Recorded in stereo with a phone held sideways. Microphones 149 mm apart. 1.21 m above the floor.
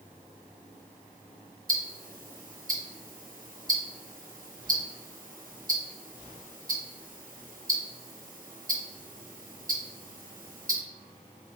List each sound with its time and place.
1.7 s ticking: 65° right (ahead or behind), 0.7 m